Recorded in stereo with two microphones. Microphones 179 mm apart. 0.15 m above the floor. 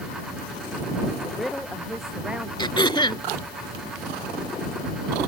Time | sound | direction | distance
1.2 | a woman speaking | centre (ahead or behind) | ?
2.6 | throat clearing | 25° left (ahead or behind) | ?